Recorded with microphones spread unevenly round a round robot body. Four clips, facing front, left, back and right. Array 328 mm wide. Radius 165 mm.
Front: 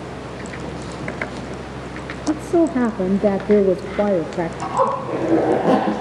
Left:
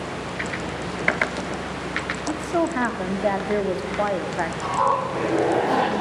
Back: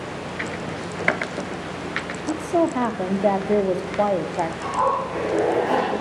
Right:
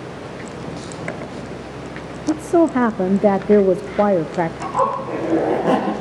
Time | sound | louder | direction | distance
2.3 | a woman speaking | right 8 dB, front 4 dB | 65° right | 1.2 m
4.6 | a zipper | left 3 dB, front 3 dB | 30° right | 9.5 m